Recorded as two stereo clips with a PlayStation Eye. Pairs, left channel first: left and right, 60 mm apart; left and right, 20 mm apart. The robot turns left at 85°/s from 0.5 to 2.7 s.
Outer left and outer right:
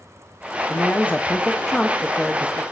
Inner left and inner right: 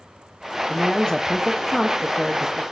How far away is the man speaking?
About 0.7 m.